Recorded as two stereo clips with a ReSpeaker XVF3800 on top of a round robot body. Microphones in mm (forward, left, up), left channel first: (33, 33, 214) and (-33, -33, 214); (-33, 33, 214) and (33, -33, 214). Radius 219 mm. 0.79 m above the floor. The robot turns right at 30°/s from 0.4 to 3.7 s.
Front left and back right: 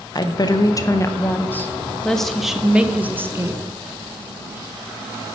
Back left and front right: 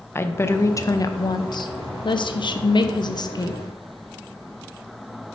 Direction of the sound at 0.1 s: 75° left.